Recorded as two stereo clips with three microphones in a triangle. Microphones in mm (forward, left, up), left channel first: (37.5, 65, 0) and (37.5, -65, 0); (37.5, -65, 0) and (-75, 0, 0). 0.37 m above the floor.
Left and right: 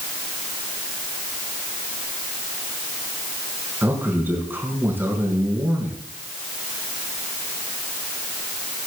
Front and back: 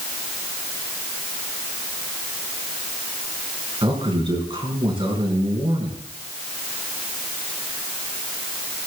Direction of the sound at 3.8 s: 165° right.